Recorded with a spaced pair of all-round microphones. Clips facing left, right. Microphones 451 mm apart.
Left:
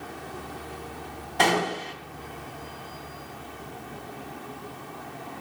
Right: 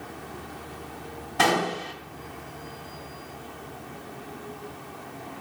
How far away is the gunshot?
About 3.5 m.